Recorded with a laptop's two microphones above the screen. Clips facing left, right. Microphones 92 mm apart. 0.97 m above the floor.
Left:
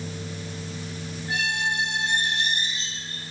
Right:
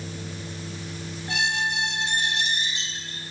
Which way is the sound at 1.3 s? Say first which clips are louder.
Right 1 dB; 85° right.